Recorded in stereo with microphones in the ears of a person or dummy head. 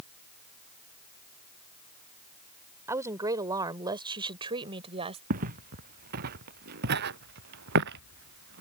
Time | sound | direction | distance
2.9 | a woman speaking | 15° right (ahead or behind) | ?
5.3 | footsteps | 45° right (ahead or behind) | ?